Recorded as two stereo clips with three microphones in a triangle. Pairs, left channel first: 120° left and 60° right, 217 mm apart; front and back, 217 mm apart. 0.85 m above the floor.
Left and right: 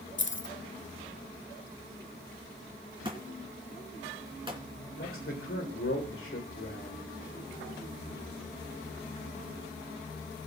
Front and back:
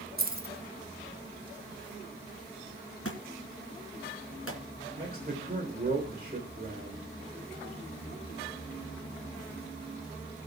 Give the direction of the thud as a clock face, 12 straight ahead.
12 o'clock.